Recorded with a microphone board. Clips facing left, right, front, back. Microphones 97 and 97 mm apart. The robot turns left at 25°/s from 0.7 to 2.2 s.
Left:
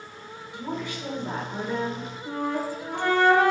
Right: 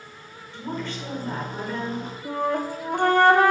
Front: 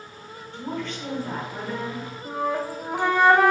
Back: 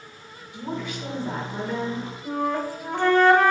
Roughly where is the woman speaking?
Behind left.